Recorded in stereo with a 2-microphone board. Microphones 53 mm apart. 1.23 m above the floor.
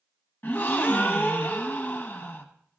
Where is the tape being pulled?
I don't hear tape being pulled.